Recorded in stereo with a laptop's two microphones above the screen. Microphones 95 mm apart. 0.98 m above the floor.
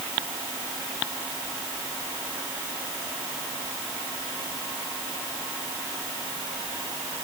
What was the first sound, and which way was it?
Only background noise.